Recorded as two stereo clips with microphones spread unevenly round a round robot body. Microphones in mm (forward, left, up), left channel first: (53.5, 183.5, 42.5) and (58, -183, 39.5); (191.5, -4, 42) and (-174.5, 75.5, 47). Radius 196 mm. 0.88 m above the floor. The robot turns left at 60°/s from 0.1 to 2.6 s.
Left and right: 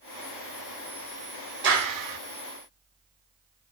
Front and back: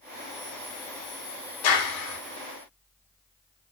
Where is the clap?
30° right, 3 m; by 2.2 s 65° right, 3 m.